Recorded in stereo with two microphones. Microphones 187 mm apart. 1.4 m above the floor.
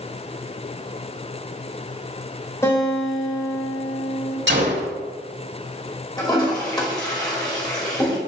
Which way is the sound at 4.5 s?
80° right.